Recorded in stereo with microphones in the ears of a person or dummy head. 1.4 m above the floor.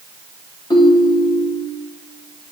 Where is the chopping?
No chopping in this recording.